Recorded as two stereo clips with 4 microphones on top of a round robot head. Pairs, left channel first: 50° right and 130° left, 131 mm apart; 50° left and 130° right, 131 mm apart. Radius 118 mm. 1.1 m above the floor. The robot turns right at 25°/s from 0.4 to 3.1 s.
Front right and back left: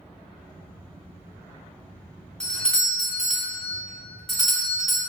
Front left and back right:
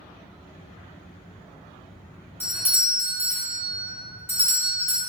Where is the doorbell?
15° left, 0.9 m; by 5.0 s 35° left, 0.9 m.